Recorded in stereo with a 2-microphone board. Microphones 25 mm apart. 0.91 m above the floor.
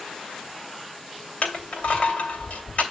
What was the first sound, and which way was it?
Crushing, 50° left (ahead or behind).